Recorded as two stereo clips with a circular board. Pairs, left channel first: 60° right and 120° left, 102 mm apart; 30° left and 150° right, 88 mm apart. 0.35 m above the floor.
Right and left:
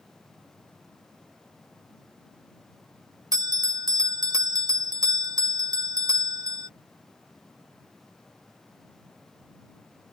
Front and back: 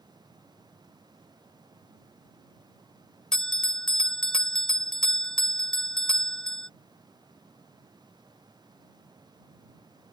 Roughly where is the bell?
Left.